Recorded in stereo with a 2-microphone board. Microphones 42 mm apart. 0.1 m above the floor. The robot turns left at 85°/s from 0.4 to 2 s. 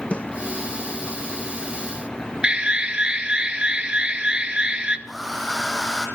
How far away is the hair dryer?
About 3 m.